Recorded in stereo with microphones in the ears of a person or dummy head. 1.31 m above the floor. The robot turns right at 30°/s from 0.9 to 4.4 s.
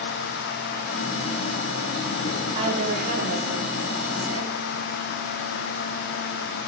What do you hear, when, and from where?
2.5 s a woman speaking: 150° right, 1.0 m; by 4.5 s 95° right, 1.0 m